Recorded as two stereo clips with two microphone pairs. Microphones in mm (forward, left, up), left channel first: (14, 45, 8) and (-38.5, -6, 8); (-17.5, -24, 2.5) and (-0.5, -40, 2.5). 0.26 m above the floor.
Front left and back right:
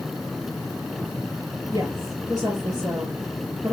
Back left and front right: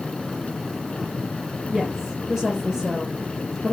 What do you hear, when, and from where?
1.7 s a woman speaking: 130° right, 4.5 m